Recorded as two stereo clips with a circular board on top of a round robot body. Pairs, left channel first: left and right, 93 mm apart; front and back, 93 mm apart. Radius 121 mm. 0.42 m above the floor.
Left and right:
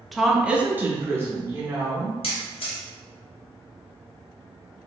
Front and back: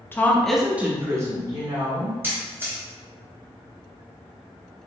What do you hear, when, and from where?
0.1 s a woman speaking: straight ahead, 0.7 m; by 2.1 s 150° right, 1.4 m
2.2 s a camera shutter: 110° left, 0.9 m